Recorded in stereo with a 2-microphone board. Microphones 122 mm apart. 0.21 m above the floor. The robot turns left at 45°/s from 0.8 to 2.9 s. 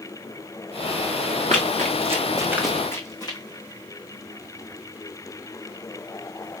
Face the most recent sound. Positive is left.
turn(degrees=35)  # may be behind; listen again after turning